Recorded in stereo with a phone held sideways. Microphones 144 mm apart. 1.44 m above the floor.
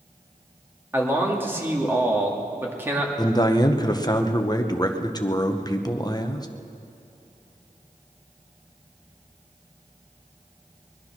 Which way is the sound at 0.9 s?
15° right (ahead or behind).